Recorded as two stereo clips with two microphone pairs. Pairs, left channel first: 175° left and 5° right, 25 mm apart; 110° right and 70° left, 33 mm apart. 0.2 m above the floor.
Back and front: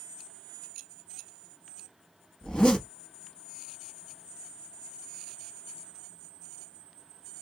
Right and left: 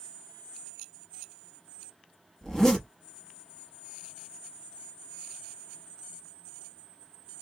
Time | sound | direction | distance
2.4 | a zipper | 170° right | 0.9 m